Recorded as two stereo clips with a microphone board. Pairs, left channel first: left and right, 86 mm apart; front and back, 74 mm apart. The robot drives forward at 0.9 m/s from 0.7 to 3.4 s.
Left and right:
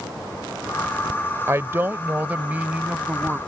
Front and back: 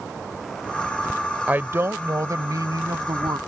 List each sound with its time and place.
1.5 s a woman speaking: 125° right; by 3.4 s 165° right